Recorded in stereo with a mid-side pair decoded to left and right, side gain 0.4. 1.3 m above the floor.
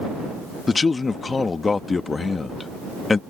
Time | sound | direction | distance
0.7 | a man speaking | 35° left | ?